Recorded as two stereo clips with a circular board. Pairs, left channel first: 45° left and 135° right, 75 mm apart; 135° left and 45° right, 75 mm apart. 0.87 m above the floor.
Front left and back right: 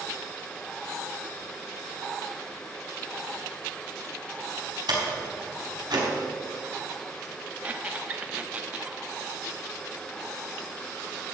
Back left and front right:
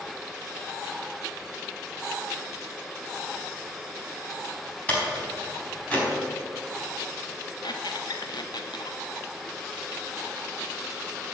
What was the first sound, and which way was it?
A door slam, 155° right.